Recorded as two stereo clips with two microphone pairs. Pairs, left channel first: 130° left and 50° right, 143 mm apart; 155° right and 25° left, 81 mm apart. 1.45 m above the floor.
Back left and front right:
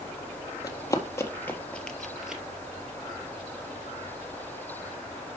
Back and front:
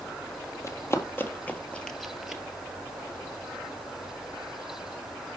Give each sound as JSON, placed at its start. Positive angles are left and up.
{"t": 0.6, "sound": "running footsteps", "azimuth_deg": 175, "distance_m": 1.9}